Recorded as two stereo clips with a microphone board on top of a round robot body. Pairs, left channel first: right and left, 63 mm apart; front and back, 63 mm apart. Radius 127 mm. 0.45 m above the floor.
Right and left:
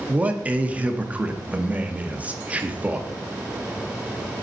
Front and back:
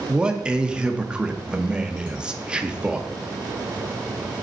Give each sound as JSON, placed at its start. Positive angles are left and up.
{"t": 0.1, "sound": "a man speaking", "azimuth_deg": 125, "distance_m": 0.9}